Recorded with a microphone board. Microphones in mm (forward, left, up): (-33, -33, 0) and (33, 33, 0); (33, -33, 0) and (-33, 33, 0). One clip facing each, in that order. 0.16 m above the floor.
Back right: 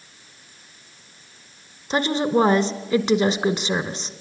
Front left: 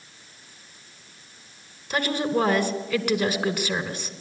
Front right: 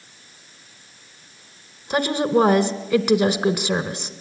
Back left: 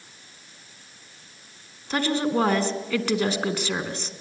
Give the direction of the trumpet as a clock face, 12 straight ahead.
I don't hear a trumpet.